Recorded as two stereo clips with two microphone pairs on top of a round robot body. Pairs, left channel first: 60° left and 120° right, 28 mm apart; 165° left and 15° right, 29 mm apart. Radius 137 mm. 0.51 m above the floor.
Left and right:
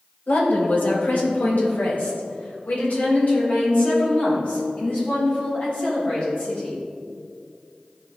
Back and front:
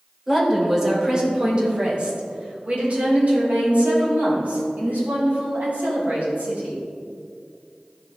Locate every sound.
0.3 s a woman speaking: 65° left, 3 m; by 6.8 s 10° left, 7 m